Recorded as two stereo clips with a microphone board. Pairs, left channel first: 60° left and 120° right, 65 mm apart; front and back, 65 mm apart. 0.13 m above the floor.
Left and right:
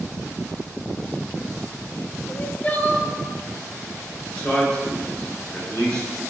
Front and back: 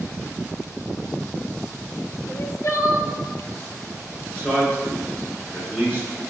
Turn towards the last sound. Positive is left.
turn(degrees=35)